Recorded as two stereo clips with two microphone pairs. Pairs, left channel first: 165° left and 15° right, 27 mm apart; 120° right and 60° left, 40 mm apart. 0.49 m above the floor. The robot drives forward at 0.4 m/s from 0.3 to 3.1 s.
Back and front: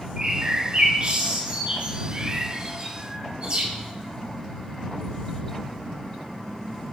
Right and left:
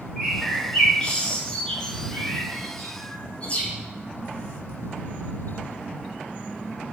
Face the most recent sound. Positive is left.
turn(degrees=-60)